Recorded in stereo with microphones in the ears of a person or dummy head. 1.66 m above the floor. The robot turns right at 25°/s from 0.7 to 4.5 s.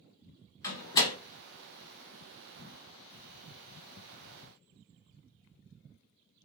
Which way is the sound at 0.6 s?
20° left (ahead or behind).